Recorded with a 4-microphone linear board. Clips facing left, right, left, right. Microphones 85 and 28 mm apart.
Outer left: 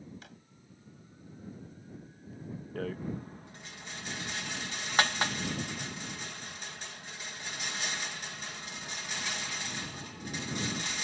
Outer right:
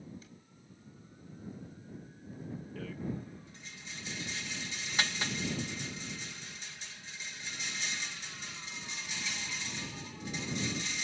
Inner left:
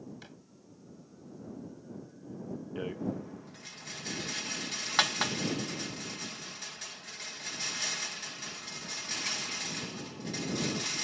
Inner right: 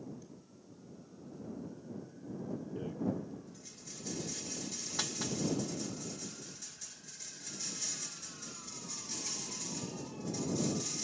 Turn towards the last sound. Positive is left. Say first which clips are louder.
# outer left 4 dB, inner left 2 dB
turn(degrees=55)  # may be behind; listen again after turning